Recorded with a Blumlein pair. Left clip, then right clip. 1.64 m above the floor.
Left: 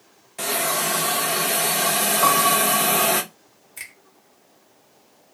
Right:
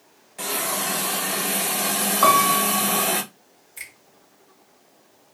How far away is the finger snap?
About 1.0 m.